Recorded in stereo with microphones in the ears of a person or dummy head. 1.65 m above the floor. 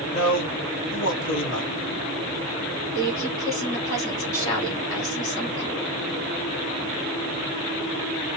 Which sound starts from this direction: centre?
A woman speaking, at 3.0 s.